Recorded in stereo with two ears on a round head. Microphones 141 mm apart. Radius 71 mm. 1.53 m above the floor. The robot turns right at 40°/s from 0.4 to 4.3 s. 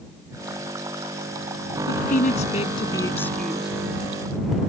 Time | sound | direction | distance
1.9 | a woman speaking | 110° left | ?